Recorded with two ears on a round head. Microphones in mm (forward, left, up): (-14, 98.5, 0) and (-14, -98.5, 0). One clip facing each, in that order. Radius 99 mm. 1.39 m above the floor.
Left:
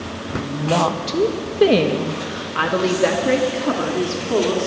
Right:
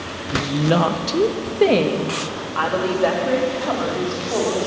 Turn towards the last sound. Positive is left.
turn(degrees=45)  # may be behind; listen again after turning